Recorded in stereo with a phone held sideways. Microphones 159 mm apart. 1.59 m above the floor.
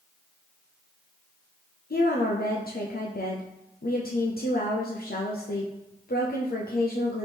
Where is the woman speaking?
70° left (ahead or behind), 0.6 m.